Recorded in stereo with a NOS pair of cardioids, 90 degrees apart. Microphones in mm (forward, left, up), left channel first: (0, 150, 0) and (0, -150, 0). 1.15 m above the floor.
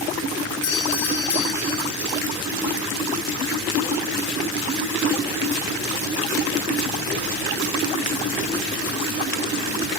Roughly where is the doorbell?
Ahead left.